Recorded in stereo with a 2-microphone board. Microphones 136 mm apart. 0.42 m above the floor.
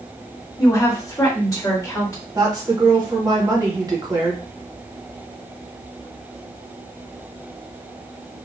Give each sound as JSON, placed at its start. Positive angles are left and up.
{"t": 0.6, "sound": "a woman speaking", "side_deg": 25, "distance_m": 1.6}
{"t": 2.4, "sound": "a woman speaking", "side_deg": -30, "distance_m": 1.0}